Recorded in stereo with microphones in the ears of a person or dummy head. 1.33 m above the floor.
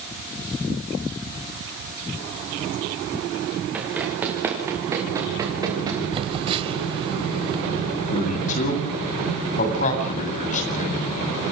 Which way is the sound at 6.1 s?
25° right (ahead or behind).